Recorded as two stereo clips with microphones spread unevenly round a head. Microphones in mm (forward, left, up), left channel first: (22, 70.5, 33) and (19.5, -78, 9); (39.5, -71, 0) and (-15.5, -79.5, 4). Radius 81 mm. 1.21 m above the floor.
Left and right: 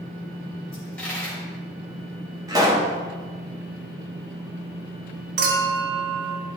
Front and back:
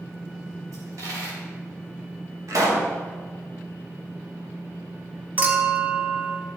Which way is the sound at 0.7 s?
170° left.